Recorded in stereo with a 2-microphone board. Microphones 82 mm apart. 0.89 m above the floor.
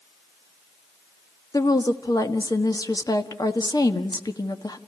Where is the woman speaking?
50° left (ahead or behind), 1.4 m.